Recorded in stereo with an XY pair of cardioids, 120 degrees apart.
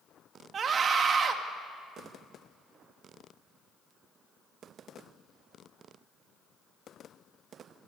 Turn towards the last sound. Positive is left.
turn(degrees=-40)